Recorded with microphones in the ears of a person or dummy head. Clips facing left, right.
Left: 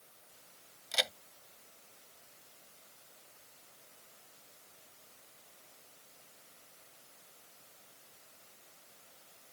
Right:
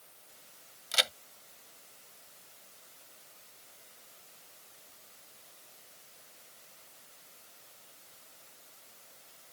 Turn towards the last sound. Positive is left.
turn(degrees=-5)  # may be behind; listen again after turning